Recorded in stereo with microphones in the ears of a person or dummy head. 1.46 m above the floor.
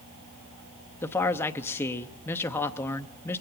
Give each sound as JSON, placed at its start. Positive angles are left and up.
{"t": 1.0, "sound": "a man speaking", "side_deg": 20, "distance_m": 0.7}